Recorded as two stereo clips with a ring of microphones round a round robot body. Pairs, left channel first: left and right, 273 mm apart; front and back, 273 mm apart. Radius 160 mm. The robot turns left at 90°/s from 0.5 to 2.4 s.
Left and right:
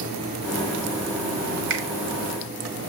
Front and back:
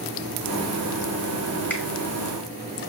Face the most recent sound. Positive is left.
turn(degrees=-145)